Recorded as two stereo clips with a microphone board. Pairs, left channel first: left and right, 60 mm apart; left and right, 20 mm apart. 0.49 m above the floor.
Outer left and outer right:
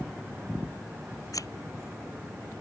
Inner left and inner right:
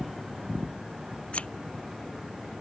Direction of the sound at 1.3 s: 75° left (ahead or behind).